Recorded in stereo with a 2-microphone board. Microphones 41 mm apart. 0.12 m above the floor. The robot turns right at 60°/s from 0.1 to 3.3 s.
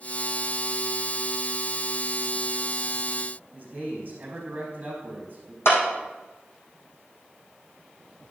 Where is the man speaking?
35° right (ahead or behind), 4.5 m.